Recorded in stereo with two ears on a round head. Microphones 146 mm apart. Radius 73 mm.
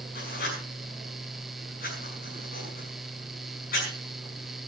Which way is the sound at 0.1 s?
60° left (ahead or behind).